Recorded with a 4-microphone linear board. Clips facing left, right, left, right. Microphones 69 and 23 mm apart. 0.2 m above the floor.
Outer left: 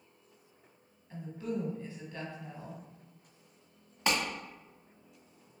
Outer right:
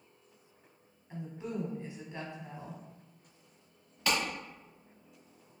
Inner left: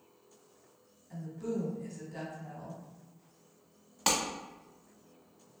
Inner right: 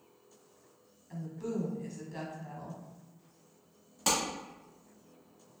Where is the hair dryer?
No hair dryer in this recording.